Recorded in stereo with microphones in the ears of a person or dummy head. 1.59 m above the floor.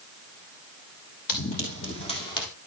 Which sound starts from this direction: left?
Running footsteps, at 1.3 s.